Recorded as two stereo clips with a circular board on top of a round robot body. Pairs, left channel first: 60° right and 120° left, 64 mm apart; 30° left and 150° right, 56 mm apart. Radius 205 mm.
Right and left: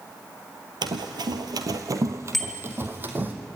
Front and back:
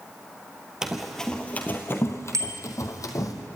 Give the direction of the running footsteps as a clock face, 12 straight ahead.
8 o'clock.